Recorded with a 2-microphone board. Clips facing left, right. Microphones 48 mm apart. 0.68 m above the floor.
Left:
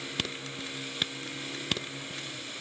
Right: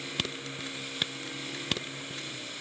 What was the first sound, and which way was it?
Only background noise.